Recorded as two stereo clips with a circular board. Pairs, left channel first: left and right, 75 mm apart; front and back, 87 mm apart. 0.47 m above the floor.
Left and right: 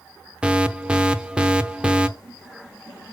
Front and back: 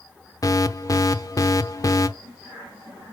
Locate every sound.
0.4 s an alarm: 20° right, 0.7 m